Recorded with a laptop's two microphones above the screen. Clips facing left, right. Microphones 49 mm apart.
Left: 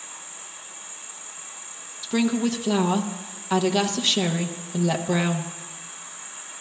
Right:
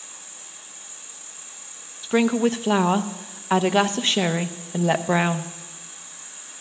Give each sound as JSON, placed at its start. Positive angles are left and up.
{"t": 0.0, "sound": "an insect", "side_deg": 25, "distance_m": 1.7}
{"t": 2.0, "sound": "a woman speaking", "side_deg": -35, "distance_m": 0.7}